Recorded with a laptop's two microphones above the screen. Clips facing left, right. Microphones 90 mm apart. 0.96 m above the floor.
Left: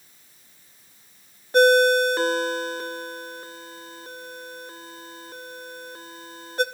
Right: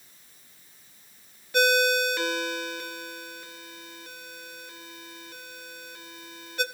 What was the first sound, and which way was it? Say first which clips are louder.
A ringtone: left 7 dB; 40° left (ahead or behind).